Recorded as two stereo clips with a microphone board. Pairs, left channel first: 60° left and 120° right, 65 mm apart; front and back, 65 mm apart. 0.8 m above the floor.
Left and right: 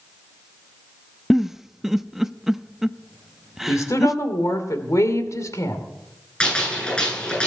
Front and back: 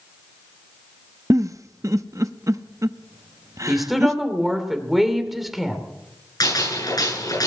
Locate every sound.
1.3 s a giggle: 155° left, 0.6 m
3.7 s a woman speaking: 90° left, 2.5 m
6.4 s a gunshot: 15° right, 10 m